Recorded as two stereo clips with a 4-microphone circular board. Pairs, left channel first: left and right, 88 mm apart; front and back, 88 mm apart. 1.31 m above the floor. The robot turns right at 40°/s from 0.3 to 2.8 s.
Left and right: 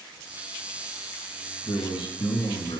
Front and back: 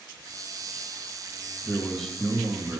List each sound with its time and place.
1.6 s a man speaking: 70° left, 2 m; by 2.8 s 115° left, 2 m